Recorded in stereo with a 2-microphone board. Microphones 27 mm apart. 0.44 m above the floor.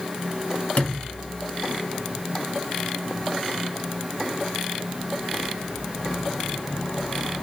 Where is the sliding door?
60° left (ahead or behind), 1.7 m.